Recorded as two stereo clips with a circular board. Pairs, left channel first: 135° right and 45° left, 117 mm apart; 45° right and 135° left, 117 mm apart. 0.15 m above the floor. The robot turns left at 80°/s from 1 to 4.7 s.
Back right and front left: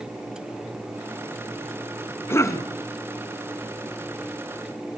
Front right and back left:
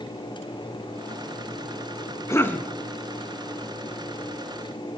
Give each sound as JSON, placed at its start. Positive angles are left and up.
{"t": 2.3, "sound": "a cough", "azimuth_deg": -85, "distance_m": 1.2}